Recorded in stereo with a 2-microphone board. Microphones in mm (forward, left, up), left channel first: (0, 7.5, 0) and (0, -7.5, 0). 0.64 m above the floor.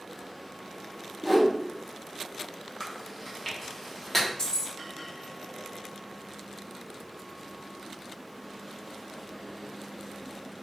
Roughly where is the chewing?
Centre.